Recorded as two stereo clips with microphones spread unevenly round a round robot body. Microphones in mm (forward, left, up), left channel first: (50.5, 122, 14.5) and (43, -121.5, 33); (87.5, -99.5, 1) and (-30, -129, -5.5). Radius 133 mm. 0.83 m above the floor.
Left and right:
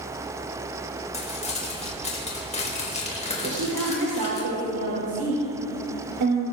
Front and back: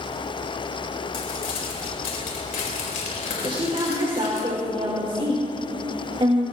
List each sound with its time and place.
1.1 s crumpling: 25° left, 4.5 m
3.4 s a woman speaking: 120° right, 3 m